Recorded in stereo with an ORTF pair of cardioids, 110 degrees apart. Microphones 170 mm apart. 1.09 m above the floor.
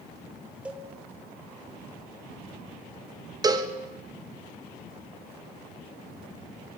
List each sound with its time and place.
0.7 s a cowbell: 5° right, 0.8 m
3.4 s a cowbell: 25° right, 1.1 m